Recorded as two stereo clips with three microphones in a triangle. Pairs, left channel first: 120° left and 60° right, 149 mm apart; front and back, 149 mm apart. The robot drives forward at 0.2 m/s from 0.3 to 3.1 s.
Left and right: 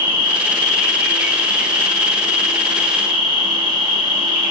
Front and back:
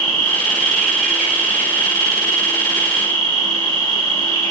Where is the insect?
65° left, 0.7 m; by 4.5 s 145° left, 0.8 m.